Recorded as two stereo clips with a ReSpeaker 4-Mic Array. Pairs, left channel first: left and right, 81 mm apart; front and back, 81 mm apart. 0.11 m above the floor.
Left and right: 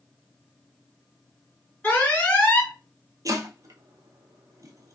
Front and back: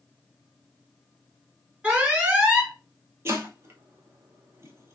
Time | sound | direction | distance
1.8 | an alarm | 125° left | 1.1 m
3.2 | chopping | 130° right | 0.7 m